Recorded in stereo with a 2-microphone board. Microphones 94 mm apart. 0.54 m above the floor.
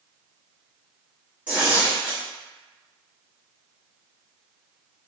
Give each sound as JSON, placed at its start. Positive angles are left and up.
{"t": 1.5, "sound": "tearing paper", "side_deg": -10, "distance_m": 1.4}